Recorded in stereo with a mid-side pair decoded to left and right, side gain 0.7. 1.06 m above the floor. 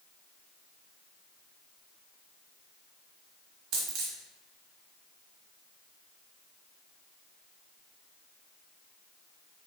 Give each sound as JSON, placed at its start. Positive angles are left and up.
{"t": 3.7, "sound": "a dropped coin", "azimuth_deg": -55, "distance_m": 1.2}